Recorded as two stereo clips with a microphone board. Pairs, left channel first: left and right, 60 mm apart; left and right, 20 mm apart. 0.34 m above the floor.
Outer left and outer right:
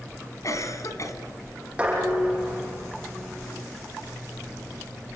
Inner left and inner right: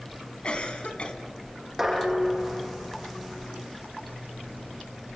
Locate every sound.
0.4 s a cough: 60° left (ahead or behind), 3.5 m
1.8 s dishes clattering: 15° right (ahead or behind), 8.5 m